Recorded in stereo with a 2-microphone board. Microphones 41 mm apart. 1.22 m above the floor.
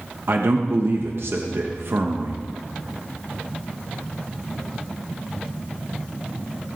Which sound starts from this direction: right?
A man speaking, at 0.3 s.